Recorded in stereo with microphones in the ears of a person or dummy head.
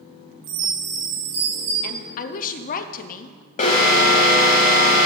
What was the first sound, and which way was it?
A chime, 60° right (ahead or behind).